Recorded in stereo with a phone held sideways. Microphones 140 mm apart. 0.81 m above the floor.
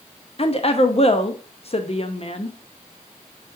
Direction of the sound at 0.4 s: 45° left (ahead or behind).